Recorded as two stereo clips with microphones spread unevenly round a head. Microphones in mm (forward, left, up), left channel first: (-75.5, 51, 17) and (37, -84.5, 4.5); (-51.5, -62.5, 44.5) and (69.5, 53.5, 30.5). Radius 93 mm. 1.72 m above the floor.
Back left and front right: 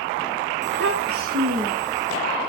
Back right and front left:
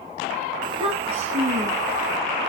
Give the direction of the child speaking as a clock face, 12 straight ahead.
1 o'clock.